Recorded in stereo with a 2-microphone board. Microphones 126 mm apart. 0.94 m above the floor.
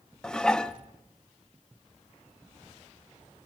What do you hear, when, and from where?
0.2 s dishes clattering: 5° left (ahead or behind), 0.5 m